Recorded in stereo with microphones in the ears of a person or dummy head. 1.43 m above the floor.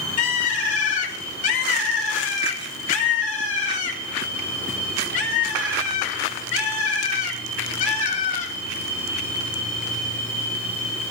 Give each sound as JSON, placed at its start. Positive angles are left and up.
{"t": 0.2, "sound": "a bird", "side_deg": 50, "distance_m": 4.5}